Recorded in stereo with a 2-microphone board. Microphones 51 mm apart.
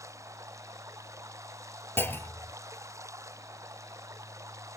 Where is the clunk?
45° left (ahead or behind).